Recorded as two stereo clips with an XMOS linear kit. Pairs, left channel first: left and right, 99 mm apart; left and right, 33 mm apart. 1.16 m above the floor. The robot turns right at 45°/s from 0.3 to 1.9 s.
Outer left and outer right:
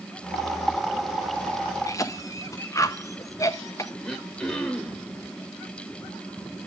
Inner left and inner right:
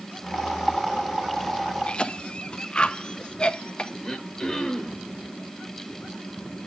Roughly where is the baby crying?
No baby crying in this recording.